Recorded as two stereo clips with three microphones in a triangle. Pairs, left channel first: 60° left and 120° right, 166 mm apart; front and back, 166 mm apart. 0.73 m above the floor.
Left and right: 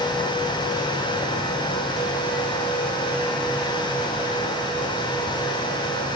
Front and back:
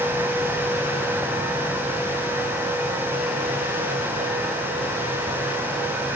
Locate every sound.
Only background noise.